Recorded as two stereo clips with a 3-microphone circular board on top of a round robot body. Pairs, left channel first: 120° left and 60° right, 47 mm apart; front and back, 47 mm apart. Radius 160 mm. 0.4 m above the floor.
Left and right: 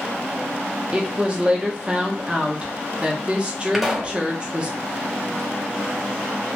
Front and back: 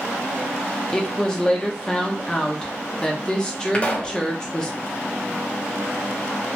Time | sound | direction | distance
0.9 | a woman speaking | 45° right | 0.8 m
3.7 | a pop | 20° left | 1.0 m